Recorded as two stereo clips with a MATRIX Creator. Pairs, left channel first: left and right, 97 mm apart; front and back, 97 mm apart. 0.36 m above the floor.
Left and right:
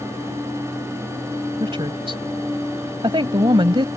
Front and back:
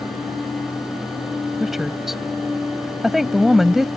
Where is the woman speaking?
95° right.